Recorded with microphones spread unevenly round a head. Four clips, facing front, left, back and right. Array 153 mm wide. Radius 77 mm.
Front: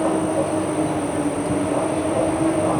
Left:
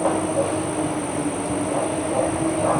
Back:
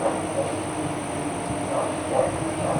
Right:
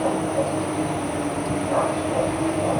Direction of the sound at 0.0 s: 15° left.